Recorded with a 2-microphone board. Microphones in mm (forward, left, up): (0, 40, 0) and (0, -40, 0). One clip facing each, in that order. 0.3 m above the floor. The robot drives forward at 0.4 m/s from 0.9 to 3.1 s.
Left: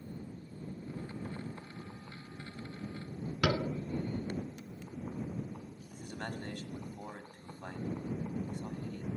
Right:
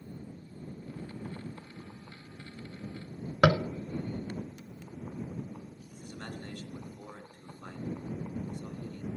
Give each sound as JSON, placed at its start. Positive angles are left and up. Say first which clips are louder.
{"t": 3.4, "sound": "tapping", "louder": "right 8 dB", "side_deg": -55, "distance_m": 0.6}
{"t": 5.9, "sound": "a man speaking", "louder": "left 2 dB", "side_deg": 55, "distance_m": 1.5}